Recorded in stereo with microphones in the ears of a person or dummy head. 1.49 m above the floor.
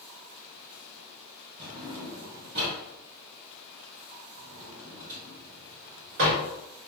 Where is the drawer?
65° right (ahead or behind), 1.7 m.